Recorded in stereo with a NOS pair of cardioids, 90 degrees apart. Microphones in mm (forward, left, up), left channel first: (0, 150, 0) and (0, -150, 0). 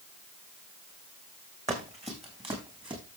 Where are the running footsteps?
25° right, 6 m; by 3.0 s 15° right, 6 m.